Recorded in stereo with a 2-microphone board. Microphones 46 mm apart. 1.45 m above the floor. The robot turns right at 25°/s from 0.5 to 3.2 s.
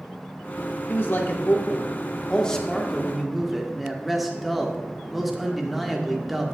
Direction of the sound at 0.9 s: 125° left.